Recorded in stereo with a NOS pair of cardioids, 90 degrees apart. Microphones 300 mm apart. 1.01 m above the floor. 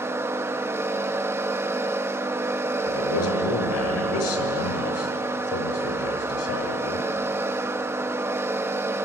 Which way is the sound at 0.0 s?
10° right.